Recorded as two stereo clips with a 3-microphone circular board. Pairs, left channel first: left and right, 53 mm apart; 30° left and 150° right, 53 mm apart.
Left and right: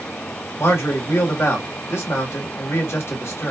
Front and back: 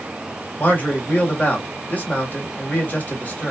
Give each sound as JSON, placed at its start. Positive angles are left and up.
{"t": 0.6, "sound": "a man speaking", "azimuth_deg": 85, "distance_m": 1.2}